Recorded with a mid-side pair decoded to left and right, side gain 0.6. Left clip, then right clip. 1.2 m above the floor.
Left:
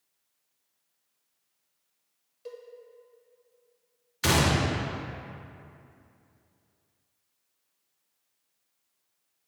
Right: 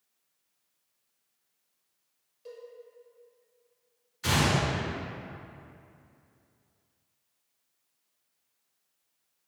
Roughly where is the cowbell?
Ahead left.